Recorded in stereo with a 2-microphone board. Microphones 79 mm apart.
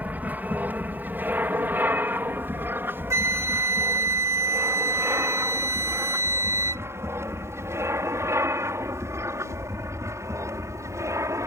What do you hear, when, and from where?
0.0 s an aircraft: 20° right (ahead or behind); by 11.5 s 40° right (ahead or behind)
3.1 s a flute: 40° right (ahead or behind)